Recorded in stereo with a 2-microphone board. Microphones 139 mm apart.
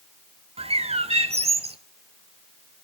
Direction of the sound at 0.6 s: 50° right (ahead or behind).